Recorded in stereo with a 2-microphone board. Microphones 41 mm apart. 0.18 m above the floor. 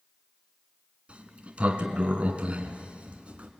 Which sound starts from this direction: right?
A sliding door, at 1.1 s.